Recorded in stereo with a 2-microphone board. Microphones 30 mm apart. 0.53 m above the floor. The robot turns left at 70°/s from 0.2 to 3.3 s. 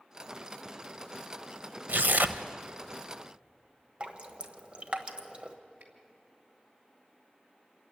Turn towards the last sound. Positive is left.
turn(degrees=-70)  # may be behind; listen again after turning